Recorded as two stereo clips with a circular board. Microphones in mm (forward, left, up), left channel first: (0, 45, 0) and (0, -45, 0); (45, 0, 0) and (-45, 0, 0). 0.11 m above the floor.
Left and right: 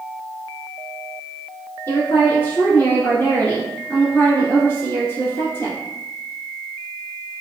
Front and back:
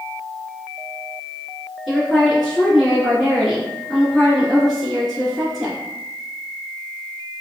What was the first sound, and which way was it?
A woman speaking, 90° left.